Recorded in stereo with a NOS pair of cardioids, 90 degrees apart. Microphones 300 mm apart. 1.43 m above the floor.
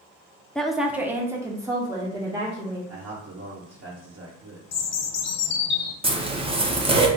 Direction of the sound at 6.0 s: 20° right.